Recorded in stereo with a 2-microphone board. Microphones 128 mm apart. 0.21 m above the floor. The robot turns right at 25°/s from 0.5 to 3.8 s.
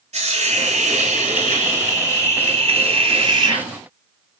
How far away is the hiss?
About 1.5 m.